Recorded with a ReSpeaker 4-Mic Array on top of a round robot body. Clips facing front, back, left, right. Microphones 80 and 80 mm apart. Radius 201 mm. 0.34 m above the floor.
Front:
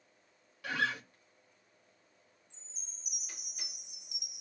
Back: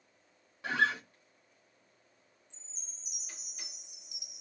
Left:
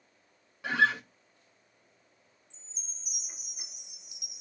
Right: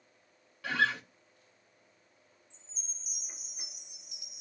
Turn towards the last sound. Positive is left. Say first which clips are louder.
# back 1 dB, even
turn(degrees=20)